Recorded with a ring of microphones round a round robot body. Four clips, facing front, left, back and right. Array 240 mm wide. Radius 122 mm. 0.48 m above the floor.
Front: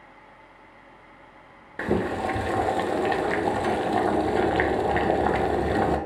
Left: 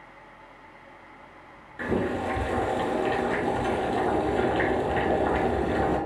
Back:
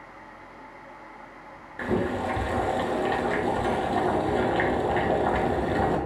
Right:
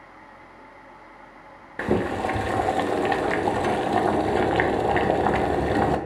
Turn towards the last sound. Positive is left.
turn(degrees=-60)